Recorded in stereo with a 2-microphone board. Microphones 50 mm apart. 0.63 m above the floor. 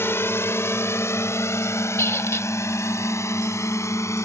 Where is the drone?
55° left (ahead or behind); by 4.2 s 80° left.